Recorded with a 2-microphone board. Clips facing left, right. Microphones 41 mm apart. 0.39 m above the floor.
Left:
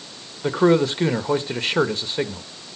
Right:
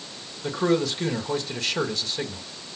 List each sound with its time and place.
0.4 s a man speaking: 30° left (ahead or behind), 1.2 m